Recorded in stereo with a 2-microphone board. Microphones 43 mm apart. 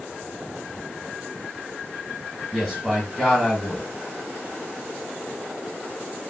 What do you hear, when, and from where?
2.5 s a man speaking: centre (ahead or behind), 0.9 m